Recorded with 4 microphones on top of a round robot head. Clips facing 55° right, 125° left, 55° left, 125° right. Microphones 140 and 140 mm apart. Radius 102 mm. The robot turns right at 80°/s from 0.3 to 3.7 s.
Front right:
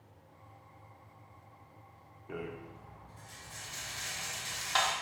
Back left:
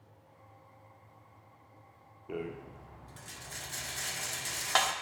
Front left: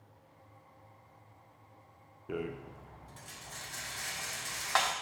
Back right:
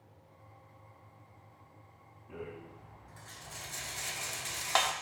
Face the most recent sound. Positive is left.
turn(degrees=165)